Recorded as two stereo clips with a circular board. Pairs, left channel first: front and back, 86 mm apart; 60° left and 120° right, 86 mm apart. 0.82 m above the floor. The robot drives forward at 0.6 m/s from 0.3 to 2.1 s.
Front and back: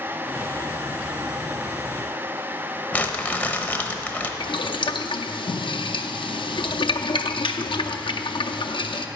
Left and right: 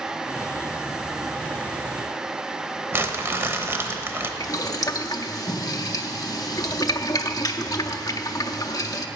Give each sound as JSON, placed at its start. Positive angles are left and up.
{"t": 2.9, "sound": "crumpling", "azimuth_deg": -65, "distance_m": 0.8}
{"t": 4.4, "sound": "boiling", "azimuth_deg": 15, "distance_m": 0.5}